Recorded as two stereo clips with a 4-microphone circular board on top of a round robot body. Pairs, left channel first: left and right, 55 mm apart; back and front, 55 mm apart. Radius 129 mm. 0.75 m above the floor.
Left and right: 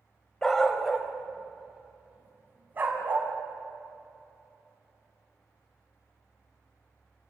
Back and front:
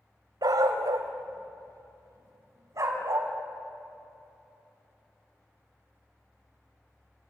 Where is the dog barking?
10° left, 1.4 m; by 3.3 s 35° right, 2.5 m.